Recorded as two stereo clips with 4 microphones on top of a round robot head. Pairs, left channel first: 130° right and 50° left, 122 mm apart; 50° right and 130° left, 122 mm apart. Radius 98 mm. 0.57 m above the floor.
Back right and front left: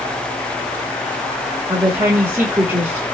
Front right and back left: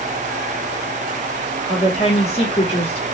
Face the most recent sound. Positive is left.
turn(degrees=-25)